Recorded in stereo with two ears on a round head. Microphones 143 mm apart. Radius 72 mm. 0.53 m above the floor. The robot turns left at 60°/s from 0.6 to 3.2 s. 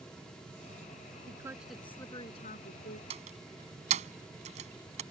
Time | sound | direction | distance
1.3 | a woman speaking | 155° right | ?
3.1 | a door slam | 40° right (ahead or behind) | ?